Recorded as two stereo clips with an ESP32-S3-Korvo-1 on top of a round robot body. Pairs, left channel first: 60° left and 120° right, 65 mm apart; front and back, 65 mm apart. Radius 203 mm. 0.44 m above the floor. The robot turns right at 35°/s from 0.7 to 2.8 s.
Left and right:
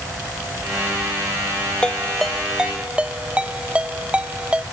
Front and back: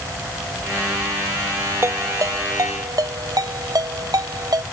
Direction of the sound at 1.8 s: 135° left.